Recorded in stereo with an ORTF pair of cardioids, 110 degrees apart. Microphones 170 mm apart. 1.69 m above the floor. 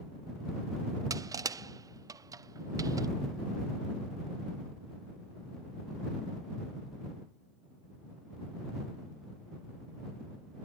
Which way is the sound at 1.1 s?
20° right.